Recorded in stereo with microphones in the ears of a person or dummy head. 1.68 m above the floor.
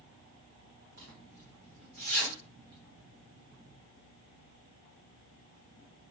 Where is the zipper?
55° right (ahead or behind), 1.5 m.